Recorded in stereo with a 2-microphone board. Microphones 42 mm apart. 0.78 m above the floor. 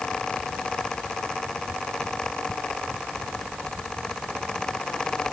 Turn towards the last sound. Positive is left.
No sound to turn to.